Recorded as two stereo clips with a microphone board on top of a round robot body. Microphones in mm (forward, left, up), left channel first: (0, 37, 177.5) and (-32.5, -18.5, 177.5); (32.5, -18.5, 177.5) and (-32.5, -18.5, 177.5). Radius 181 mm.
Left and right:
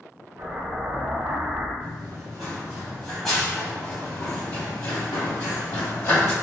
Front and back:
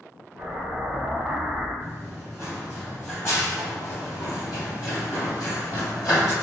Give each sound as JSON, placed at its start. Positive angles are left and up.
{"t": 0.4, "sound": "an explosion", "azimuth_deg": -90, "distance_m": 1.3}
{"t": 1.8, "sound": "running footsteps", "azimuth_deg": -135, "distance_m": 1.2}